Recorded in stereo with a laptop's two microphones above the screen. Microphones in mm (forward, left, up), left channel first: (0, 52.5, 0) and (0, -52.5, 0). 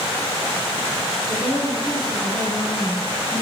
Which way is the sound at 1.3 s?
85° right.